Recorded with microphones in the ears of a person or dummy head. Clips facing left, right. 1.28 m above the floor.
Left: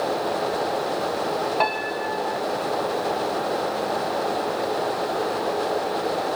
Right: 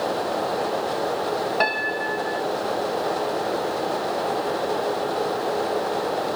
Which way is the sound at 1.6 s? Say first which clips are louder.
Even; 15° right (ahead or behind).